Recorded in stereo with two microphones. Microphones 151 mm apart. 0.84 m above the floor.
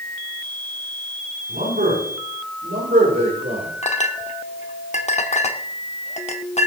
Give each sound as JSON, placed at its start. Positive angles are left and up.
{"t": 1.5, "sound": "a man speaking", "side_deg": -75, "distance_m": 8.5}
{"t": 3.8, "sound": "a clink", "side_deg": 45, "distance_m": 0.9}